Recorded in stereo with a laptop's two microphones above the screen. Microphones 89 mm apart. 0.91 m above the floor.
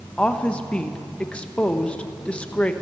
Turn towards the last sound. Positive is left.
turn(degrees=10)  # may be behind; listen again after turning